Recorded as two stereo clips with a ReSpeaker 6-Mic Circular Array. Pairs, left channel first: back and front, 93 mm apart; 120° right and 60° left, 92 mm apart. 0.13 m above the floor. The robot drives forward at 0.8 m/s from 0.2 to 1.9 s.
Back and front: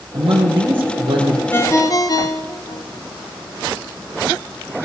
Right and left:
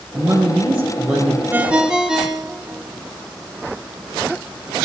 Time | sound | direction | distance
0.1 | a man speaking | 20° right | 4 m
1.5 | a ringtone | 120° left | 0.7 m